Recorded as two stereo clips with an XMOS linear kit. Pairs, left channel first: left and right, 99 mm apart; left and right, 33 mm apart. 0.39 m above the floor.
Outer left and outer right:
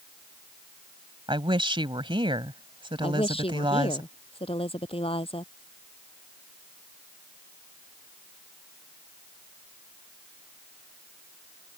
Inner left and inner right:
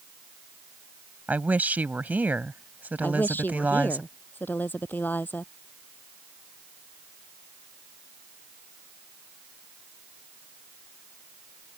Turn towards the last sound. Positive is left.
turn(degrees=75)  # may be behind; listen again after turning